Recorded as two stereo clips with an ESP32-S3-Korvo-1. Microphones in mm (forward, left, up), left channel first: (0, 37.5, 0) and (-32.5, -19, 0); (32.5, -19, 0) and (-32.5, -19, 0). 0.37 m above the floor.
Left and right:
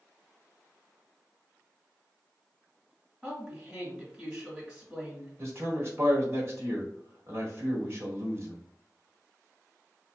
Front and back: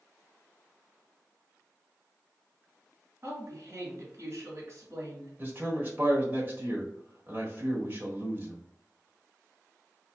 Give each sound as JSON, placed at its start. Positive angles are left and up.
{"t": 3.2, "sound": "a woman speaking", "azimuth_deg": 180, "distance_m": 1.5}
{"t": 5.4, "sound": "a man speaking", "azimuth_deg": -135, "distance_m": 1.3}